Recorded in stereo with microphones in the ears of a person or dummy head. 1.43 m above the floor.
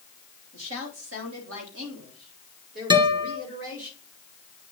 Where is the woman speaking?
85° right, 3 m; by 3.9 s 75° right (ahead or behind), 5 m.